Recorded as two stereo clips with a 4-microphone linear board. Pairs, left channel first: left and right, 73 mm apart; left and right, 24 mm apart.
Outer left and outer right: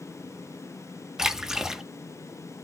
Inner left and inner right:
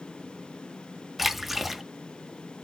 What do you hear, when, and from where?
1.2 s a splash: 10° right (ahead or behind), 1.0 m